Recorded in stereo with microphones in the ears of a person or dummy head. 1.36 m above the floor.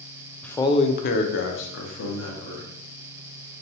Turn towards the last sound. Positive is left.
turn(degrees=80)